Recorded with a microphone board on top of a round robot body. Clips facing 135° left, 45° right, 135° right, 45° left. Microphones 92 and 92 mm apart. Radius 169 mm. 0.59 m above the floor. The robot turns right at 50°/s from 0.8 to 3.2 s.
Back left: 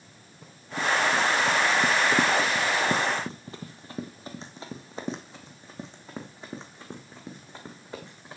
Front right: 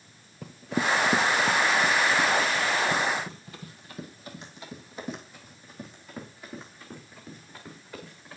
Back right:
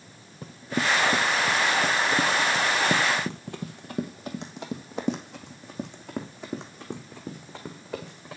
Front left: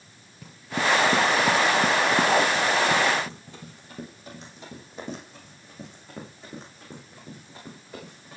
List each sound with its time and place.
0.4 s running footsteps: 80° right, 0.8 m; by 8.4 s 160° right, 4 m